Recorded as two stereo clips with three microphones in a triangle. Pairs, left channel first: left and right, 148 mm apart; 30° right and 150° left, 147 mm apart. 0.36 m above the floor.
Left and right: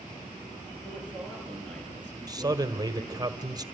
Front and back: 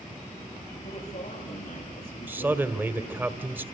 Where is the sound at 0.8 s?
10° left, 7 m.